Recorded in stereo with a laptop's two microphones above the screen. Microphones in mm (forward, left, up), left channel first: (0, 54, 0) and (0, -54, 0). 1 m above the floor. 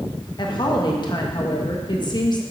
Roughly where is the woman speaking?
Left.